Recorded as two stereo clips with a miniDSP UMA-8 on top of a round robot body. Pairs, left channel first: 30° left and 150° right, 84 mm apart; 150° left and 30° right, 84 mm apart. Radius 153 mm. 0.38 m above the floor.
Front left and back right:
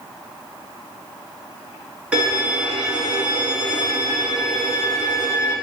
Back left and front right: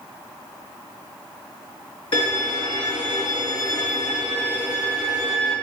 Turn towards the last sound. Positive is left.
turn(degrees=130)